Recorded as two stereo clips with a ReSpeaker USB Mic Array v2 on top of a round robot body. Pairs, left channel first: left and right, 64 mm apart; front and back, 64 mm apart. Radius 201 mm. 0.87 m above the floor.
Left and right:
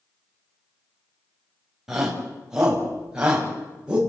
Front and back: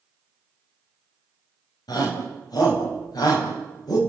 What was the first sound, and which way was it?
A shout, 5° right.